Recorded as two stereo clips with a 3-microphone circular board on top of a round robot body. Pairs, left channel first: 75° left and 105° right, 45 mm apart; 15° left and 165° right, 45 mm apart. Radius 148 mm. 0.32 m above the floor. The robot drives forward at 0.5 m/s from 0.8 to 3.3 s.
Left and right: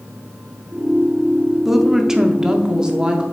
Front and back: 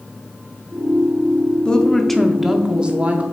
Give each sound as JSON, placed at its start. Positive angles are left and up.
{"t": 1.6, "sound": "a woman speaking", "azimuth_deg": -30, "distance_m": 0.9}